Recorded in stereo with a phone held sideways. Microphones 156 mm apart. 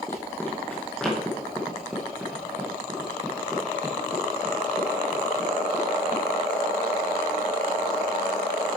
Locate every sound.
0.1 s running footsteps: 15° left (ahead or behind), 2 m; by 6.2 s 25° right (ahead or behind), 4.5 m